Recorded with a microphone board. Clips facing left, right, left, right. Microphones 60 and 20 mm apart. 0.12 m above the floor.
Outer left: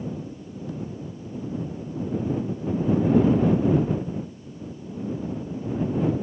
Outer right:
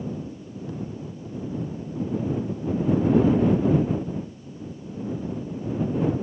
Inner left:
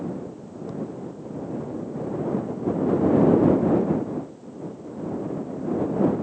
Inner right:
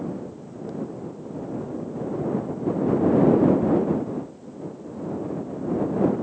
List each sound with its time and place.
Only background noise.